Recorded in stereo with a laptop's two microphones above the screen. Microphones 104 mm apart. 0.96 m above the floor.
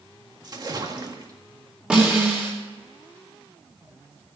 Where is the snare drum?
10° right (ahead or behind), 3.5 m.